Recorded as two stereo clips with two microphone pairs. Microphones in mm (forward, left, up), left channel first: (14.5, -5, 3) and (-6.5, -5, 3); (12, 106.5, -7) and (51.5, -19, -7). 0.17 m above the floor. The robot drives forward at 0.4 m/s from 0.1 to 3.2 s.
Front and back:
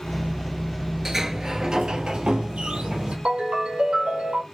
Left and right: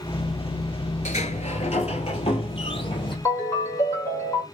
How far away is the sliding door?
About 0.6 m.